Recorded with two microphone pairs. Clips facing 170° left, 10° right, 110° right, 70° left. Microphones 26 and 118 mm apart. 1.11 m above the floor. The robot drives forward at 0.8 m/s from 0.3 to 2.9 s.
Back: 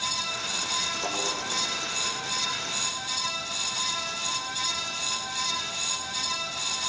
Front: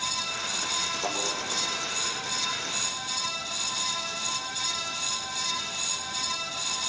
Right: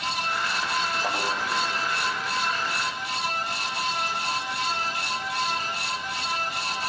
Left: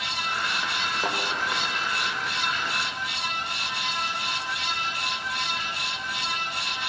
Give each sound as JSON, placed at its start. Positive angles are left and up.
{"t": 1.0, "sound": "a thud", "azimuth_deg": 75, "distance_m": 9.5}